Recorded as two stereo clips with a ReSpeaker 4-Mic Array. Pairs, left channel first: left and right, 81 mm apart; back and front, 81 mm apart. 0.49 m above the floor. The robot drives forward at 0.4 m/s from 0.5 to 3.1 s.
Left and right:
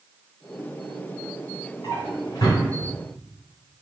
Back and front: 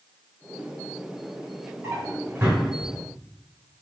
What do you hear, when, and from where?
1.8 s a drawer: 50° left, 2 m; by 2.6 s 60° left, 1.9 m